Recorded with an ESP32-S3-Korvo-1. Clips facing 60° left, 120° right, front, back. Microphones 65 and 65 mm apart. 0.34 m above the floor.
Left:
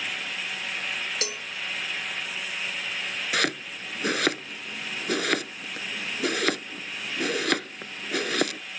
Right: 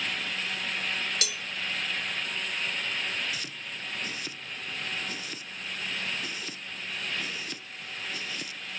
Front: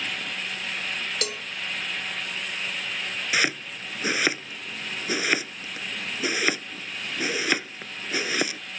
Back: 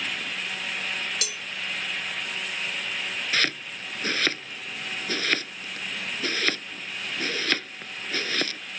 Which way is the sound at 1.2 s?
15° left.